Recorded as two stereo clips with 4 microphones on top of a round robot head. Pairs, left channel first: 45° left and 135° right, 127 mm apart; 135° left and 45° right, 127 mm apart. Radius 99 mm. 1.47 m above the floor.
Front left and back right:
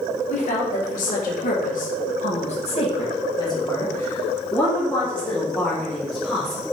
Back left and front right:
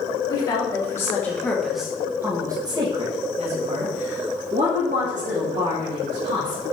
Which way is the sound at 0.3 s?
75° left.